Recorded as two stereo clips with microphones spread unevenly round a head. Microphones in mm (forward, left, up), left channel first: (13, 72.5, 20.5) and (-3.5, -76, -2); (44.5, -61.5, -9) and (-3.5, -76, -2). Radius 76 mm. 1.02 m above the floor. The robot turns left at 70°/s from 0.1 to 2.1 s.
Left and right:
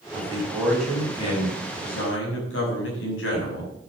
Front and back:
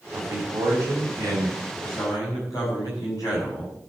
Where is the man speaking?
140° right, 6 m; by 3.7 s 80° left, 6 m.